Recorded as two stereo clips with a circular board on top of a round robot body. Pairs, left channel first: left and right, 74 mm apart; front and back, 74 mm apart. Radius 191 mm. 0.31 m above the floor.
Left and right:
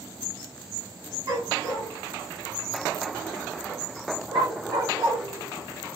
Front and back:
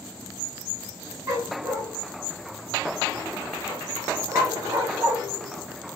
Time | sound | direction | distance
1.3 | a dog barking | 125° right | 1.9 m